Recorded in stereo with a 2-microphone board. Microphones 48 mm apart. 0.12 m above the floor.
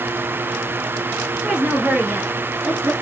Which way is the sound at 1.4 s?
25° right (ahead or behind).